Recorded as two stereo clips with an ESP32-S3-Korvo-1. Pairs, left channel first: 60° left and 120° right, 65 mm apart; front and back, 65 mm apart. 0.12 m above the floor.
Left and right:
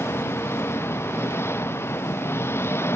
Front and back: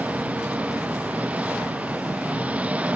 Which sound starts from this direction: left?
An engine running, at 0.0 s.